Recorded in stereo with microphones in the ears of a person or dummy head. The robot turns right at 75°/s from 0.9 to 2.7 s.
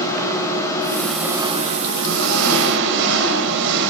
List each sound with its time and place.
0.0 s an engine running: 170° left, 8 m; by 3.9 s 55° right, 8 m